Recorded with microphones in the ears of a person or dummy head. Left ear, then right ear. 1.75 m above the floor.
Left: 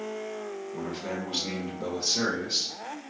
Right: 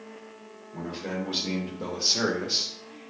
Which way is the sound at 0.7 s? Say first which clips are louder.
Right 3 dB; 5° right (ahead or behind).